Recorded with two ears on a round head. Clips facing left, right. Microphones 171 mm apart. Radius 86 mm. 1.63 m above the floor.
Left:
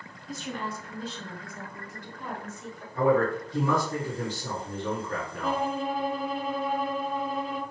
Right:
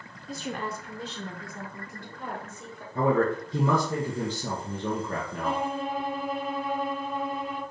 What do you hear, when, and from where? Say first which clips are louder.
0.3 s a woman speaking: right 1 dB; 20° right (ahead or behind), 0.6 m; by 2.9 s 45° right (ahead or behind), 3 m
3.0 s a man speaking: left 1 dB; 75° right (ahead or behind), 1.9 m
5.4 s a violin: left 2 dB; 60° left (ahead or behind), 1.4 m